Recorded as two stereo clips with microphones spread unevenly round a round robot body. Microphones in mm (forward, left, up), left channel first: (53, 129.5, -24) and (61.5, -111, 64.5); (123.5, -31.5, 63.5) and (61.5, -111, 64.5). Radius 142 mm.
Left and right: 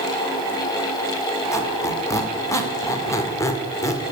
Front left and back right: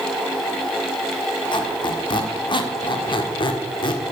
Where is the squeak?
10° left, 1.5 m.